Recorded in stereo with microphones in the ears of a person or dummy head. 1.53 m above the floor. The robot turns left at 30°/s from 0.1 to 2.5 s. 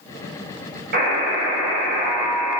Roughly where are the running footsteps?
I don't hear running footsteps.